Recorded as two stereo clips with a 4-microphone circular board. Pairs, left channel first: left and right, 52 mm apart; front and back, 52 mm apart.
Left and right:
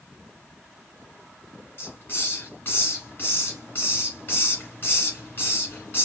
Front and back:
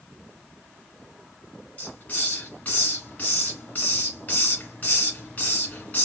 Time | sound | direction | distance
1.8 | a hiss | 50° left | 2.5 m